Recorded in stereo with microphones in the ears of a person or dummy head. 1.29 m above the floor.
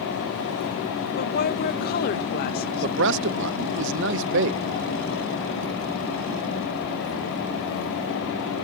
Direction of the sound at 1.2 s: 55° left (ahead or behind).